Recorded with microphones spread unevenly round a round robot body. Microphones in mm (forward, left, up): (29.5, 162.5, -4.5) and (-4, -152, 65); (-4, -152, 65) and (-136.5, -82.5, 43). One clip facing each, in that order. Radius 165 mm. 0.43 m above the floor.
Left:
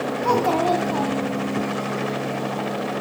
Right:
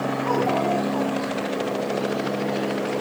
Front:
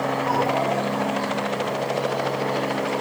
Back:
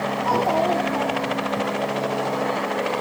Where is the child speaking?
90° left, 2.5 m; by 1.6 s 100° left, 3 m.